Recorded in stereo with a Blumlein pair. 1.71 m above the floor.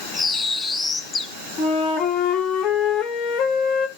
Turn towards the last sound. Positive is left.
turn(degrees=30)